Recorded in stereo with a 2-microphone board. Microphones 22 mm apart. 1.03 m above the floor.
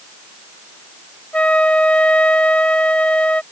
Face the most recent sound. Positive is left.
turn(degrees=70)  # may be behind; listen again after turning